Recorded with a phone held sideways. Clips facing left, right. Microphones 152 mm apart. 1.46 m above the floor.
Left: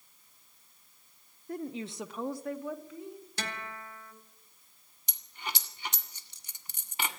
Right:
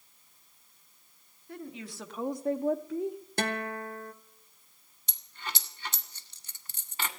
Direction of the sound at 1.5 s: 45° left (ahead or behind).